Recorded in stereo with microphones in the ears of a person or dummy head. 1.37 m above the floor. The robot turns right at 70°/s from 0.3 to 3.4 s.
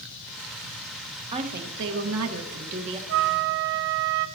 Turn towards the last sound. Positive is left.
turn(degrees=-55)  # may be behind; listen again after turning